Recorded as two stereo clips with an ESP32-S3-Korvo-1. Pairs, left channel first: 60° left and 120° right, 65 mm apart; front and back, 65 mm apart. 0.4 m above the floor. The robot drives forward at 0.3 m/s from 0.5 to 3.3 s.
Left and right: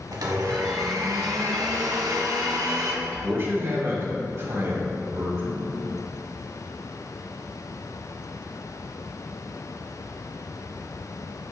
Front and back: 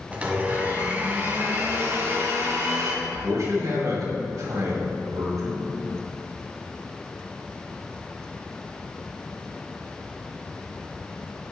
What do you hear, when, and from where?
0.1 s a blender: 110° right, 1.0 m; by 2.9 s 140° right, 1.5 m
3.0 s a man speaking: 160° right, 2 m